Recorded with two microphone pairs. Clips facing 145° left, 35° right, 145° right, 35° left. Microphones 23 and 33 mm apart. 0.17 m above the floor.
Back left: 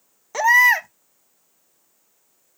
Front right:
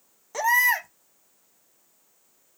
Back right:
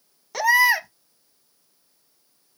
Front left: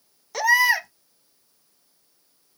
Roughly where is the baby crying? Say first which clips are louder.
Back left 7 dB, back right 1 dB; behind left.